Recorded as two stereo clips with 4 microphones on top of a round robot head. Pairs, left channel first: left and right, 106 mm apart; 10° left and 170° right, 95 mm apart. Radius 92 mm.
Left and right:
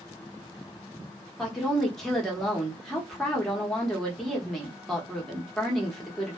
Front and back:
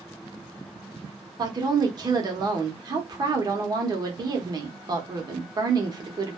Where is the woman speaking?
175° left, 1.0 m.